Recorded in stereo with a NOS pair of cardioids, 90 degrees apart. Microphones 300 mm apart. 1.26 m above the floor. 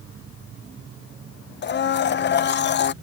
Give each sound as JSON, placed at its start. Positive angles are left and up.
{"t": 1.6, "sound": "a blender", "azimuth_deg": 35}